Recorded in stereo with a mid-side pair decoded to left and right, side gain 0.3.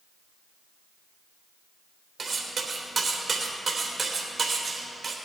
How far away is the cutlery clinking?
About 3 m.